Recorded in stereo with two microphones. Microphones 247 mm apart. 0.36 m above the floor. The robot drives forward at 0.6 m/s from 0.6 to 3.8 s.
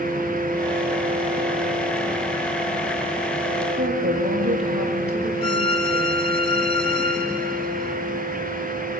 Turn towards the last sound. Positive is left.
turn(degrees=20)  # may be behind; listen again after turning